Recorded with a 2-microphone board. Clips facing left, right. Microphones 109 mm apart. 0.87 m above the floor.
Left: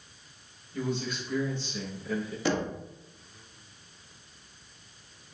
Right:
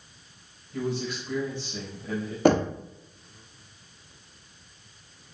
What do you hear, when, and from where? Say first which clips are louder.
0.7 s a man speaking: right 2 dB; 85° right, 3.5 m
2.5 s knocking: right 9 dB; 50° right (ahead or behind), 0.6 m